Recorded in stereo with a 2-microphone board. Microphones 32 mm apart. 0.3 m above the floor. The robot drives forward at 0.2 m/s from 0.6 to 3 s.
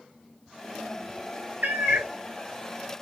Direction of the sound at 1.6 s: 70° right (ahead or behind).